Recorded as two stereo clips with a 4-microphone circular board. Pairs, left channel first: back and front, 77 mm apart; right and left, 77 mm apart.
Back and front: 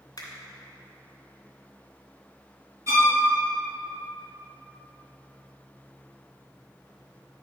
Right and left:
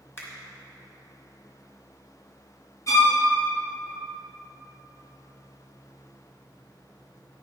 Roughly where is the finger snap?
Behind right.